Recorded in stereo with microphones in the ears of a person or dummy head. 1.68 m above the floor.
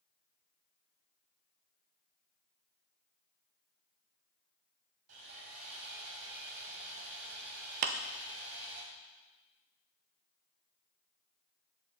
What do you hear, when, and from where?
5.1 s sawing: 75° right (ahead or behind), 4 m
7.8 s a clap: 50° right (ahead or behind), 0.8 m